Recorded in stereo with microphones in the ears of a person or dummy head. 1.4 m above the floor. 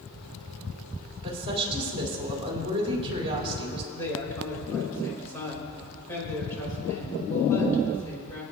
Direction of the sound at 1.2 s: 25° right (ahead or behind).